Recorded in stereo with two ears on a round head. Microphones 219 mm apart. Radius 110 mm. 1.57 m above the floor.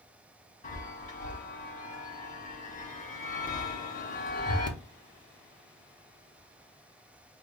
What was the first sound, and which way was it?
A chime, 35° left (ahead or behind).